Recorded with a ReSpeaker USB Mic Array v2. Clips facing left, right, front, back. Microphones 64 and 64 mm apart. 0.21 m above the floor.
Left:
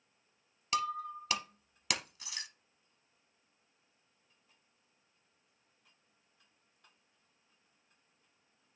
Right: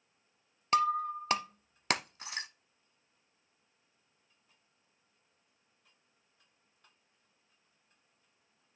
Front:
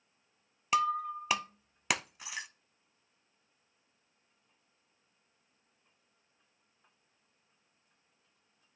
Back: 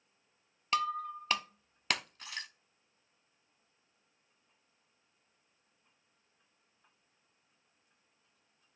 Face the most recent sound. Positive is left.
turn(degrees=-75)